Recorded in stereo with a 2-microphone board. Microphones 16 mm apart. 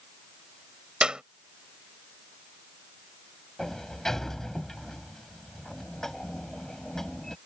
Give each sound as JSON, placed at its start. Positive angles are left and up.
{"t": 1.0, "sound": "a clap", "side_deg": -65}
{"t": 3.6, "sound": "a sliding door", "side_deg": 20}